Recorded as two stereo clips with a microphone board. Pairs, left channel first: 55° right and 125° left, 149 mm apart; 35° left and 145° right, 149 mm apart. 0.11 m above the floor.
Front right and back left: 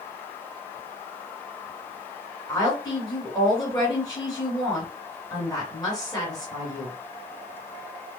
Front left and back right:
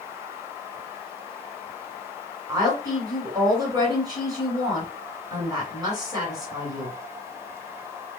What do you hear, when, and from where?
2.5 s a woman speaking: 100° right, 1.8 m